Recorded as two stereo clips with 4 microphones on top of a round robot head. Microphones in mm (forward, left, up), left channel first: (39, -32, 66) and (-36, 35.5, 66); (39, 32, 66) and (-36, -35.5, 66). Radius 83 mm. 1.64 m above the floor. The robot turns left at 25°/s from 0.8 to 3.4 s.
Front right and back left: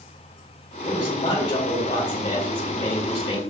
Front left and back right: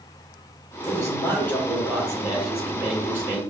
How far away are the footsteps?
No footsteps in this recording.